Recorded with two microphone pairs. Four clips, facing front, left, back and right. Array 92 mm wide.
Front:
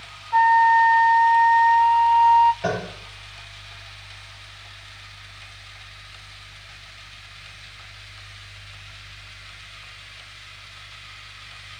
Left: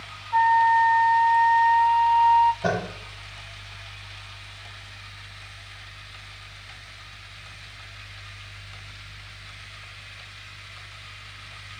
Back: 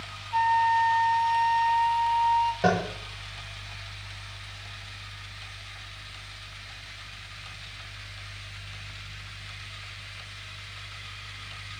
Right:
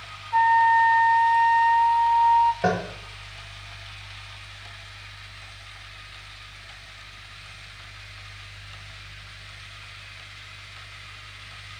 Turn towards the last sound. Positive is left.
turn(degrees=-130)